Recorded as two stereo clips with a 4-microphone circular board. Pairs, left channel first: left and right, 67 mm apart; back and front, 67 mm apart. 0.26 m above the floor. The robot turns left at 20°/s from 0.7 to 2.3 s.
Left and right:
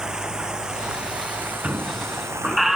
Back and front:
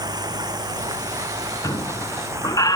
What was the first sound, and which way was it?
Running water, 10° right.